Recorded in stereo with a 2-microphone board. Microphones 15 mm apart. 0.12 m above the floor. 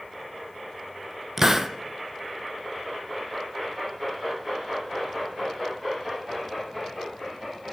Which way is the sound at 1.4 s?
20° right (ahead or behind).